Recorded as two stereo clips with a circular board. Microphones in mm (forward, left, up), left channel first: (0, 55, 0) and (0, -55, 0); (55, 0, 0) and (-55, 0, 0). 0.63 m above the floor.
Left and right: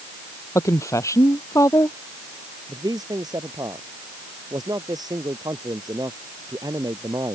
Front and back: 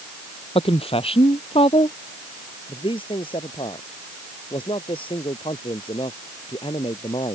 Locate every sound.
0.6 s a woman speaking: 30° left
2.7 s a man speaking: 35° right